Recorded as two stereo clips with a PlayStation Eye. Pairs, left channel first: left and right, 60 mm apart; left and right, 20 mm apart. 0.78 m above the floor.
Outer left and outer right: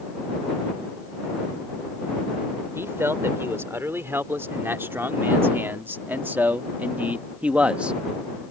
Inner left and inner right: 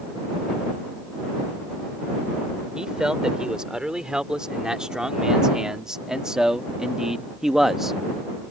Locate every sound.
2.8 s a man speaking: 45° right (ahead or behind); by 8.0 s 15° right (ahead or behind)